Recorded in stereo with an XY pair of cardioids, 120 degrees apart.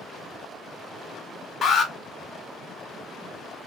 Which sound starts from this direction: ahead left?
An alarm, at 1.6 s.